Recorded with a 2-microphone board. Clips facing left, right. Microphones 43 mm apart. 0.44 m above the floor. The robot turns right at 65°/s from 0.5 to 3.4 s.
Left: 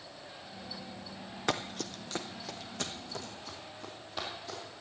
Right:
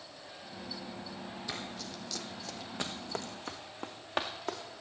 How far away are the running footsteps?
About 0.9 m.